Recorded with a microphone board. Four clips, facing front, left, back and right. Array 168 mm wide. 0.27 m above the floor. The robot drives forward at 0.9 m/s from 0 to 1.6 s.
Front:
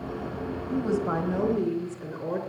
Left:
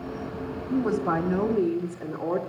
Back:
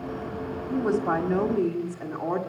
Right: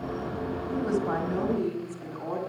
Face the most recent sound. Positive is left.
turn(degrees=170)